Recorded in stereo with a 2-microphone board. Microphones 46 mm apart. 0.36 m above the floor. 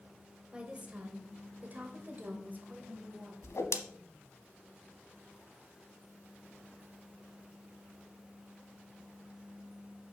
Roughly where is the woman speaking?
Right.